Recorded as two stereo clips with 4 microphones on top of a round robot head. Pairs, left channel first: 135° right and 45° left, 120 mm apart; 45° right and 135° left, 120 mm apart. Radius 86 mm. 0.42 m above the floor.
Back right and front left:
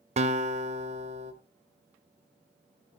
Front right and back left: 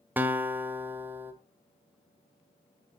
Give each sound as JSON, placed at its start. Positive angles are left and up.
{"t": 0.2, "sound": "a guitar", "azimuth_deg": 60, "distance_m": 1.4}